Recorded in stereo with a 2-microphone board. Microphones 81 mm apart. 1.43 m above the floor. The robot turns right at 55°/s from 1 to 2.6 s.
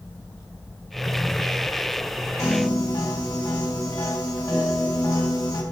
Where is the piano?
40° left (ahead or behind), 1.3 m; by 5.6 s 50° left (ahead or behind), 1.3 m.